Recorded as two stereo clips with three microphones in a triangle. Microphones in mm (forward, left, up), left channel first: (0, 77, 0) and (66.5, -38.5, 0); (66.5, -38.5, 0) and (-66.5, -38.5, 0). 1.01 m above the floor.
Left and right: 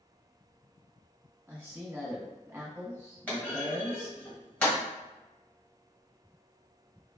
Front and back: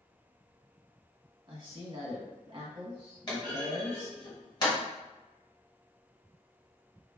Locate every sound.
1.5 s a man speaking: 135° right, 1.2 m
3.3 s a clunk: 45° left, 1.2 m